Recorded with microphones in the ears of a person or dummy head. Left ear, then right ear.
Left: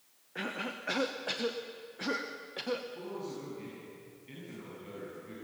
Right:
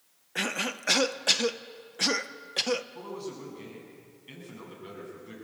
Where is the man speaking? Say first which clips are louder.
Right 2 dB; 40° right (ahead or behind), 9.5 m.